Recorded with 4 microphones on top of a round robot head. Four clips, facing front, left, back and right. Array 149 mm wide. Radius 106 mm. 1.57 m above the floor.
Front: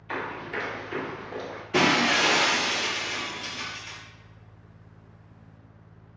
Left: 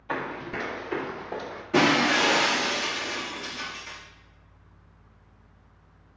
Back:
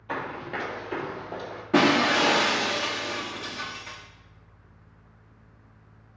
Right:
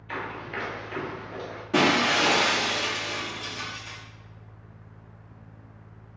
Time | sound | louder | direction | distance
0.1 | running footsteps | left 3 dB, even | 140° left | 2.5 m
1.7 | breaking glass | left 1 dB, back 2 dB | 165° right | 1.8 m